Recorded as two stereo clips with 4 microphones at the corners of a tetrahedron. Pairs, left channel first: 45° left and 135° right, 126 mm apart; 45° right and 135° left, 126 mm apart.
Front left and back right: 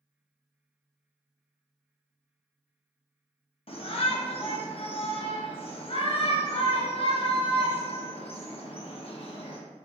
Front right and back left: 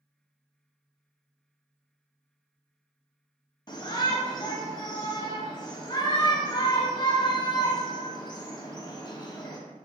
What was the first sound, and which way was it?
A shout, 5° left.